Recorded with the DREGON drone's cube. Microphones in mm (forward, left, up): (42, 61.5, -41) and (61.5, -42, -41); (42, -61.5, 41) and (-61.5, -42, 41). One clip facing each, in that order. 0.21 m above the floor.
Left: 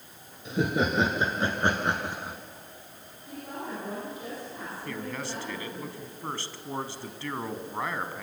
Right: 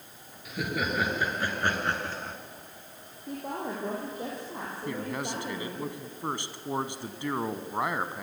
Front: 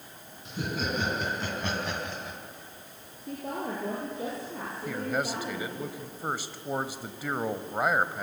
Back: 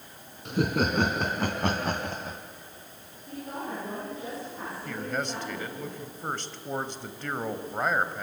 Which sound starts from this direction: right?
A man speaking, at 4.8 s.